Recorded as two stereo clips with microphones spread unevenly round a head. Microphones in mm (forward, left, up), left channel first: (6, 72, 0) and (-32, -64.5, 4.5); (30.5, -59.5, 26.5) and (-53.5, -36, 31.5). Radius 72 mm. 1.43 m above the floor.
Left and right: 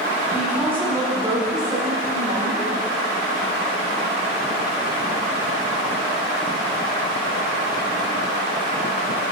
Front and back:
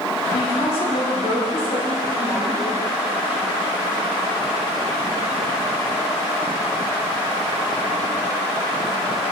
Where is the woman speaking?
25° right, 4 m; by 2.8 s 45° right, 5.5 m.